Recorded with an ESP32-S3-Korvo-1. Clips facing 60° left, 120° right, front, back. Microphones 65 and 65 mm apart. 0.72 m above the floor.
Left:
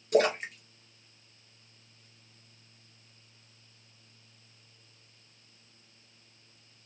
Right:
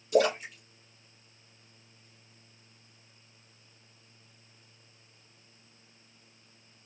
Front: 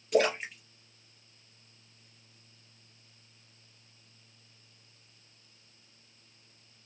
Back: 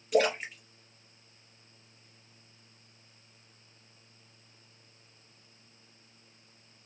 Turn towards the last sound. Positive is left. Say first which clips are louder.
# even, even
turn(degrees=90)